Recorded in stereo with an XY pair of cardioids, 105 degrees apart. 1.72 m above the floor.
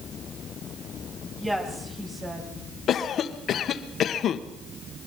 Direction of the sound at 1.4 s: 15° right.